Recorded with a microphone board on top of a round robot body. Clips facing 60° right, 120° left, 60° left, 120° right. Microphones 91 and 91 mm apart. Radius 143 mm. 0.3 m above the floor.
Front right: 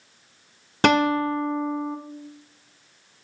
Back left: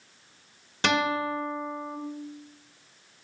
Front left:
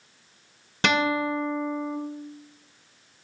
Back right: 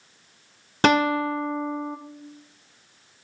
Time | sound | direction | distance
0.8 | a guitar | 80° right | 0.8 m